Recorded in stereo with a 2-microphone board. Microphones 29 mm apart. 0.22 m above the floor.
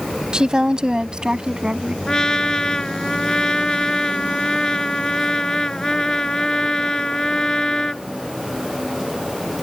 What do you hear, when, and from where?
0.3 s a woman speaking: 30° right (ahead or behind); by 2.0 s 25° right (ahead or behind)
2.1 s a trumpet: 25° left (ahead or behind)